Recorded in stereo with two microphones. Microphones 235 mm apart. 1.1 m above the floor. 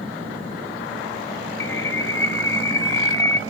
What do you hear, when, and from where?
1.6 s a bird: 55° left (ahead or behind), 0.5 m